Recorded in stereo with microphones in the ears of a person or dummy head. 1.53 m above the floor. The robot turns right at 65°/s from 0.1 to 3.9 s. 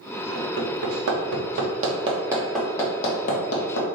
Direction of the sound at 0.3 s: 35° right (ahead or behind).